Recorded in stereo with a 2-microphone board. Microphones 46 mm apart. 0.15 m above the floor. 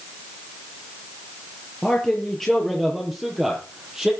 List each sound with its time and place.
1.8 s a man speaking: 15° left (ahead or behind), 3.5 m; by 4.1 s 10° right (ahead or behind), 5.5 m